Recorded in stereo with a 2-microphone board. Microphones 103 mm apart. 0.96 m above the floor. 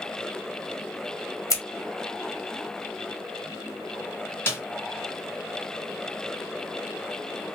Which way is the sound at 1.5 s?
35° left (ahead or behind).